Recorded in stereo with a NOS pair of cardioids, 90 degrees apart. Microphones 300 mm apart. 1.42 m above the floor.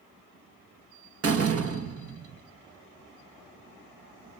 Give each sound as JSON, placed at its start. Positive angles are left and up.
{"t": 1.2, "sound": "a door slam", "azimuth_deg": -50, "distance_m": 1.7}